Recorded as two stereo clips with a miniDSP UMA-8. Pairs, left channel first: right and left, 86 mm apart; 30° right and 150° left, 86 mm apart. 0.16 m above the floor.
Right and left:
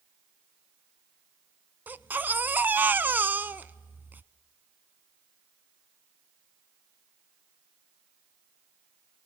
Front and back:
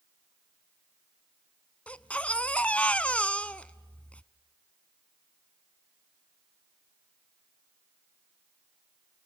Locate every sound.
1.9 s a baby crying: 35° left, 0.5 m